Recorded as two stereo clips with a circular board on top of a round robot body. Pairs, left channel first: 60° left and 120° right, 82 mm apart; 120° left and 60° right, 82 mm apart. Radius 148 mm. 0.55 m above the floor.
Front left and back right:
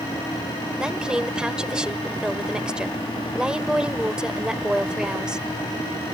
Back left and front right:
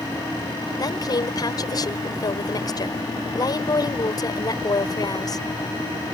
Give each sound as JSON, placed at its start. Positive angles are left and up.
{"t": 0.8, "sound": "a woman speaking", "azimuth_deg": 160}